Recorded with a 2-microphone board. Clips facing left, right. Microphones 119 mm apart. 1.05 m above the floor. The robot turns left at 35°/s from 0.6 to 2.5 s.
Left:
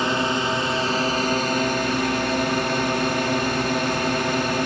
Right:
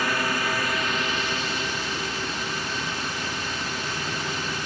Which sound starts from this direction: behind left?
A drone, at 0.0 s.